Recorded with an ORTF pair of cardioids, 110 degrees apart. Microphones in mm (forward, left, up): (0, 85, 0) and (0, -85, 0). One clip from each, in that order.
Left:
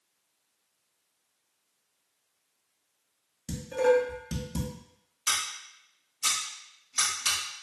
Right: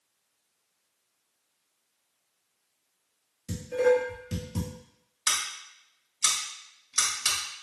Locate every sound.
3.5 s dishes clattering: 25° left, 1.4 m
5.3 s scissors: 30° right, 1.8 m